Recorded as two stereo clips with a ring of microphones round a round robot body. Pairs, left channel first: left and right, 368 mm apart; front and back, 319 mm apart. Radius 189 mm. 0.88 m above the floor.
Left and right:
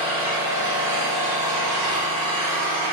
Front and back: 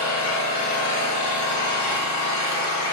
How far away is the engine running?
About 1.0 m.